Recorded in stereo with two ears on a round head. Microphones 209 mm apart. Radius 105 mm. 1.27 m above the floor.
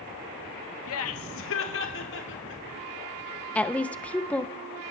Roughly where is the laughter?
Left.